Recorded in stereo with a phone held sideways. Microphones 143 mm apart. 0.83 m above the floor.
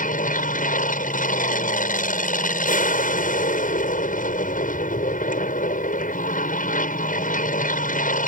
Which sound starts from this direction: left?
An aircraft, at 0.0 s.